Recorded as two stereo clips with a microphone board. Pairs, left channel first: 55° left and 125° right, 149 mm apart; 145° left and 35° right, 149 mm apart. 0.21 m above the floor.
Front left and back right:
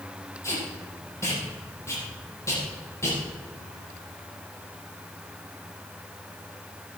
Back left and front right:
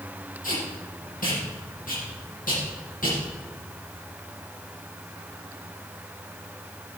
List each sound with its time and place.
0.4 s tape being pulled: 125° left, 5.5 m